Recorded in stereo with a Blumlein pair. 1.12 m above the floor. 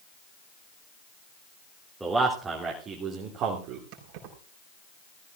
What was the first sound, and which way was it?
A man speaking, 10° right.